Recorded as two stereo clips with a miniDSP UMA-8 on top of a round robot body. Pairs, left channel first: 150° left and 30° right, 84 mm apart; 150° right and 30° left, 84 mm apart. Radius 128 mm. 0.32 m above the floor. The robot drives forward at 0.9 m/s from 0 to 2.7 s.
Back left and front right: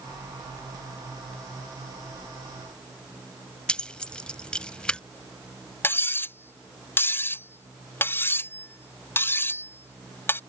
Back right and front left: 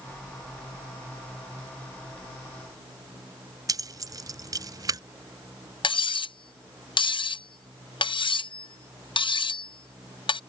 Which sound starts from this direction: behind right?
Cutlery clinking, at 5.8 s.